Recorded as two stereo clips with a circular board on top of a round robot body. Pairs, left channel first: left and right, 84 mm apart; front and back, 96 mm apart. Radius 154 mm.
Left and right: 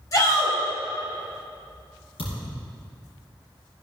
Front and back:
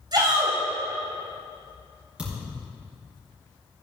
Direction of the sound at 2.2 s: 100° left.